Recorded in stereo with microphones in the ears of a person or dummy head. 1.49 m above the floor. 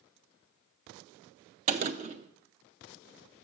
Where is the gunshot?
35° right (ahead or behind), 0.6 m.